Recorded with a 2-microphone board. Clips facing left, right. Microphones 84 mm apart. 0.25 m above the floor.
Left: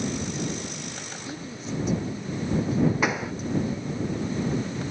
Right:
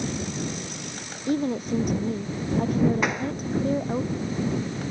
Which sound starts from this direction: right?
A woman speaking, at 1.3 s.